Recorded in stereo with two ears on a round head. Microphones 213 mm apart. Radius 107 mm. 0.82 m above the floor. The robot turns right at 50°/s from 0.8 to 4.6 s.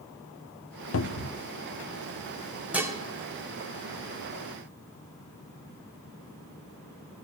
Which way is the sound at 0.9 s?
55° left (ahead or behind).